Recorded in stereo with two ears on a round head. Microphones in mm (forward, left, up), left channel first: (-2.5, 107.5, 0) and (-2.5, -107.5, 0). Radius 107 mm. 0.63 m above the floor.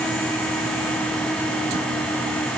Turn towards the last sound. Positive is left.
No sound to turn to.